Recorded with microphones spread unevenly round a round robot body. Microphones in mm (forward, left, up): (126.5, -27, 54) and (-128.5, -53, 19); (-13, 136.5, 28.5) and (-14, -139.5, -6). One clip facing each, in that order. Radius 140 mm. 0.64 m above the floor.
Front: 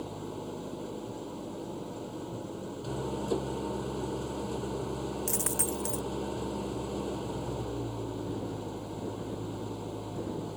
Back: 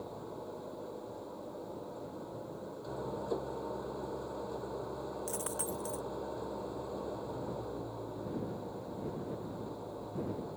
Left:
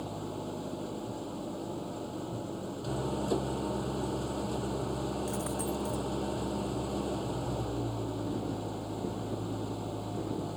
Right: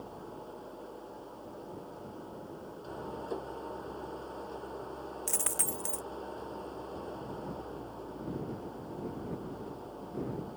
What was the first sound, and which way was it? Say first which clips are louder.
An engine running: front 5 dB, left 7 dB; 55° left.